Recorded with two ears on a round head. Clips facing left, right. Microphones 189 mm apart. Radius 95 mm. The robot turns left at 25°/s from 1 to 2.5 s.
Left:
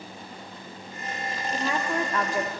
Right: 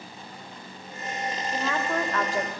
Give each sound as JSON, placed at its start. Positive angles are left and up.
{"t": 1.5, "sound": "a woman speaking", "side_deg": 15, "distance_m": 0.9}